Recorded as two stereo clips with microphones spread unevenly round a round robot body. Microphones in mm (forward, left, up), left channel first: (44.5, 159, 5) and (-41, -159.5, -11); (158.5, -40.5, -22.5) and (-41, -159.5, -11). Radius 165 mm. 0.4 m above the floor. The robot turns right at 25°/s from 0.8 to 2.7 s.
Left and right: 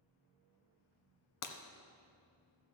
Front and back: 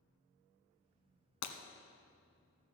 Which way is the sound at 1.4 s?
30° left.